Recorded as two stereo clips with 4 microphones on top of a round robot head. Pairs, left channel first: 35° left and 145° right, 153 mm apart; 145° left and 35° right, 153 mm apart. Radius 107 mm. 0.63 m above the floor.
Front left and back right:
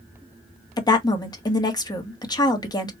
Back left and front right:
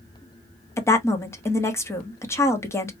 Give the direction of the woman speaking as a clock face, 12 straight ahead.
9 o'clock.